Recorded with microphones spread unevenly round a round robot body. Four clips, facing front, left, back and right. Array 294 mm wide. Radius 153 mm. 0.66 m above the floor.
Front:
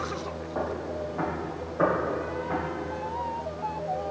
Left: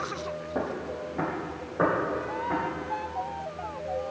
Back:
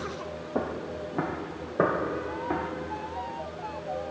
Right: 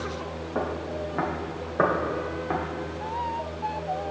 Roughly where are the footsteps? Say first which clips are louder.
Right 3 dB, even; behind.